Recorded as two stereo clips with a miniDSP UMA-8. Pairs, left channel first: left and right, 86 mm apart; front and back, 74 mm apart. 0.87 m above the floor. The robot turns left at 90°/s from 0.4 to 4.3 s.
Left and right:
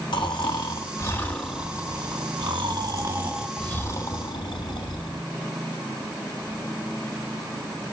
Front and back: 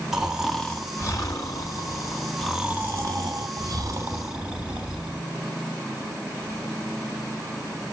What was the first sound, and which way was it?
Snoring, 95° left.